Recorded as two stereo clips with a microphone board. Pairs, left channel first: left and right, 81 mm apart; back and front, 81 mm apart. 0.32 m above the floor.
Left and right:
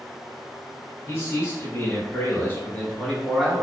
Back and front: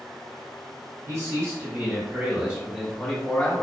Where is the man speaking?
40° left, 1.4 m; by 3.6 s straight behind, 0.8 m.